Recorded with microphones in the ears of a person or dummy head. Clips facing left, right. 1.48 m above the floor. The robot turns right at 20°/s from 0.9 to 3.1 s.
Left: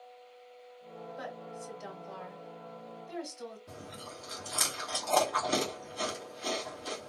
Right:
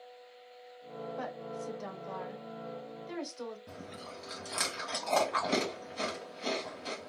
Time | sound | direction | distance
1.2 | a woman speaking | 50° right (ahead or behind) | 1.8 m
3.7 | chewing | 50° right (ahead or behind) | 1.6 m